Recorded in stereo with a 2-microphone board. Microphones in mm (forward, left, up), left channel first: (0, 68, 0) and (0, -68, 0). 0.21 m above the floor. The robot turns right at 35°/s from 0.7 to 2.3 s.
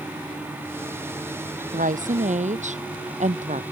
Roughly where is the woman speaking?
Right.